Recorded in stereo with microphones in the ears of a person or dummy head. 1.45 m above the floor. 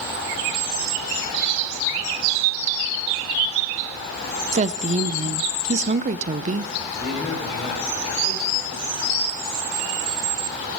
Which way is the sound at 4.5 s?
45° right (ahead or behind).